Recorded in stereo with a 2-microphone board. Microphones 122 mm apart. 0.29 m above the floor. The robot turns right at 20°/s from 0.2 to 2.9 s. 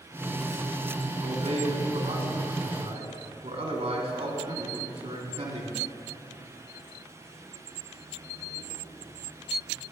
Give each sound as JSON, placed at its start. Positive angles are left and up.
{"t": 1.2, "sound": "a man speaking", "azimuth_deg": -120, "distance_m": 2.0}